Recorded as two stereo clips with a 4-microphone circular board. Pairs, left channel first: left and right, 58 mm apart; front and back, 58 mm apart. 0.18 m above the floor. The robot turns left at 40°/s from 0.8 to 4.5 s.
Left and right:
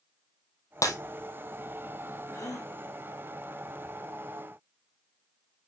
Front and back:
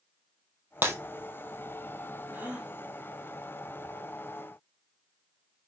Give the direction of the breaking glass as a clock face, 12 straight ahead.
8 o'clock.